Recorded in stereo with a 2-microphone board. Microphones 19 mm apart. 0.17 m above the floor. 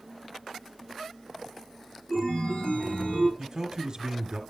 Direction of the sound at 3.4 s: 40° right (ahead or behind).